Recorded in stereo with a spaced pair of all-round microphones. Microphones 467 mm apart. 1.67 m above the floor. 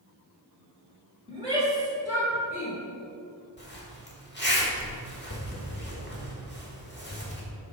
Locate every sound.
1.3 s a shout: 10° right (ahead or behind), 3 m; by 2.8 s 25° left (ahead or behind), 1.2 m
3.6 s a zipper: 25° left (ahead or behind), 1.7 m